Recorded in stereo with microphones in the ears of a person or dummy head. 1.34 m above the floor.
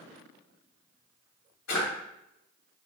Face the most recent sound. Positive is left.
turn(degrees=70)  # may be behind; listen again after turning